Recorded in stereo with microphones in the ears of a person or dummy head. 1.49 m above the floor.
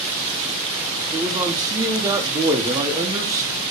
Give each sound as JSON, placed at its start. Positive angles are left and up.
{"t": 1.1, "sound": "a man speaking", "side_deg": -20, "distance_m": 0.7}